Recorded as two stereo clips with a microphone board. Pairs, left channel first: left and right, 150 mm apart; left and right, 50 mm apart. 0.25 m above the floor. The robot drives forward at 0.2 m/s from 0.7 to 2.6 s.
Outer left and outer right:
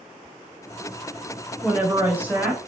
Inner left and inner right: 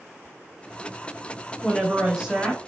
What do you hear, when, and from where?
1.6 s a woman speaking: 10° right (ahead or behind), 0.9 m